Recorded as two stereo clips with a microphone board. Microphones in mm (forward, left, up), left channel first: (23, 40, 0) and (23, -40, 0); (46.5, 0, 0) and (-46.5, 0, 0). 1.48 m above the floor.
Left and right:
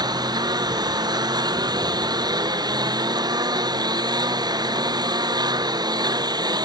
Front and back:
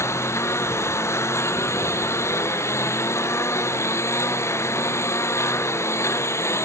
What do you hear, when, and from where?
0.0 s a lawn mower: 60° right